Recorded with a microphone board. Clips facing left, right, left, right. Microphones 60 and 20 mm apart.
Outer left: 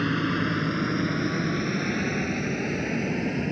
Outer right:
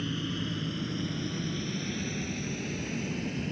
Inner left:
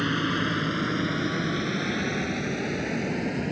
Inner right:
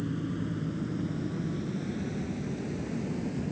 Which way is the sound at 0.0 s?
60° left (ahead or behind).